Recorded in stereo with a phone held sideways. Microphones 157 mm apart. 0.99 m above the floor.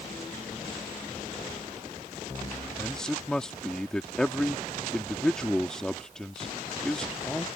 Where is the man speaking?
5° left (ahead or behind).